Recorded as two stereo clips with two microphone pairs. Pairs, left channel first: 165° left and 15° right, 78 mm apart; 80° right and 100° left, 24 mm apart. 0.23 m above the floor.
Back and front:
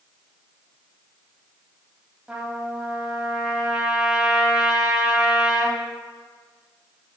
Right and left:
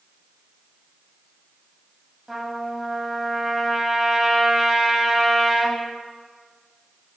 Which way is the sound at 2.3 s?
40° left.